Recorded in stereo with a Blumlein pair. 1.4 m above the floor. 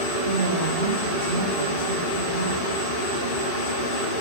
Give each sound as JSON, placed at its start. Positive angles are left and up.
{"t": 0.2, "sound": "a woman speaking", "azimuth_deg": -60, "distance_m": 2.5}